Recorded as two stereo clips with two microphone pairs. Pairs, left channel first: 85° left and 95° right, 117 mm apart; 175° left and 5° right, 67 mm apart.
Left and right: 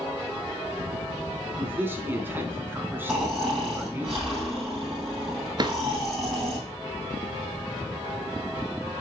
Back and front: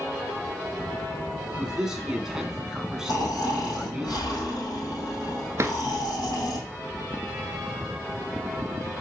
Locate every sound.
1.6 s a man speaking: 70° right, 1.1 m
3.1 s snoring: 175° right, 3.5 m
5.6 s a drawer: 50° right, 0.7 m